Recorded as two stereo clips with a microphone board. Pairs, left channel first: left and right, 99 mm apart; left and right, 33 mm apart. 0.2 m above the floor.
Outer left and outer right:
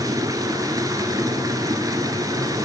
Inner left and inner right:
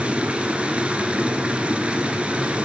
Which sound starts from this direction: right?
Running water, at 0.0 s.